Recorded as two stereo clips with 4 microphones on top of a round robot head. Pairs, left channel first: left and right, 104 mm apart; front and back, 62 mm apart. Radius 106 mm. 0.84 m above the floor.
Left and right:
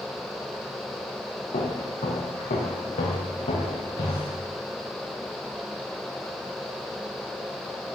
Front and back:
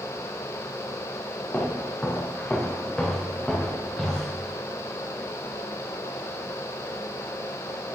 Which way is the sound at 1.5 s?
65° left.